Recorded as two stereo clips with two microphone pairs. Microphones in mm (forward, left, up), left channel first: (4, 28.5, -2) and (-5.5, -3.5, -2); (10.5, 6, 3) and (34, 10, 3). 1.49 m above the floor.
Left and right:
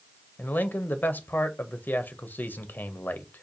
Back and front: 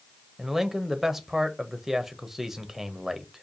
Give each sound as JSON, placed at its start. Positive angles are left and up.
{"t": 0.4, "sound": "a man speaking", "azimuth_deg": 85, "distance_m": 0.6}